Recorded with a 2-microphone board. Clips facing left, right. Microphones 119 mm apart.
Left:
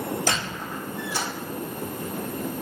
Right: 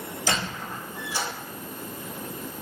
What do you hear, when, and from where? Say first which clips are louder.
0.3 s a squeak: left 1 dB; 55° left (ahead or behind), 1.2 m